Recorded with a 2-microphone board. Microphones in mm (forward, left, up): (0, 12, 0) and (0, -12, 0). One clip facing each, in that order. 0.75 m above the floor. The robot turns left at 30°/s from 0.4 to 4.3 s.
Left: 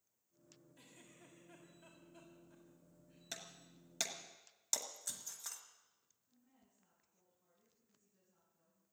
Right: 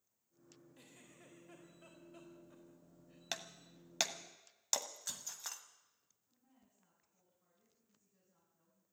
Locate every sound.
0.8 s a giggle: 40° right (ahead or behind), 4.5 m; by 3.2 s 60° right (ahead or behind), 4.5 m
3.3 s breaking glass: 55° right (ahead or behind), 1.1 m; by 5.6 s 35° right (ahead or behind), 1.1 m
6.3 s a woman speaking: 30° right (ahead or behind), 7.5 m